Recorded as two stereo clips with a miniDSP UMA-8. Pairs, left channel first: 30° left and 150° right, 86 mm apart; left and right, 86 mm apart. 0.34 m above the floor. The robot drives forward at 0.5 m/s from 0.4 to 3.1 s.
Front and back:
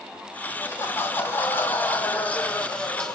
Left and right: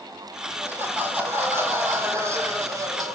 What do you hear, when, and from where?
0.5 s laughter: 25° right, 2.5 m; by 3.1 s 55° right, 1.5 m